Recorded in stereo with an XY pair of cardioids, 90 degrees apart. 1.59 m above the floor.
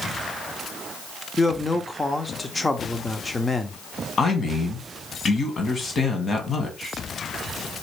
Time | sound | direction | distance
1.4 | a man speaking | 20° left | 0.8 m
4.2 | a man speaking | 45° left | 1.5 m